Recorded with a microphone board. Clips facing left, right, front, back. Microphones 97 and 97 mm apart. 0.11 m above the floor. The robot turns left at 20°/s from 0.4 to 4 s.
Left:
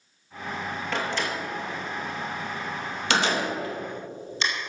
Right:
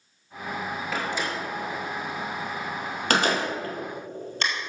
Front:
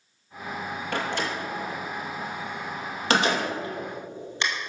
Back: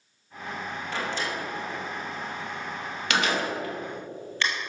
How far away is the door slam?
About 2 m.